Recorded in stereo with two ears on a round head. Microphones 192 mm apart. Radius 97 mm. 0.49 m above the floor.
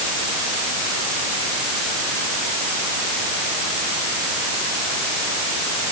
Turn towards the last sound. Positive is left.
No sound to turn to.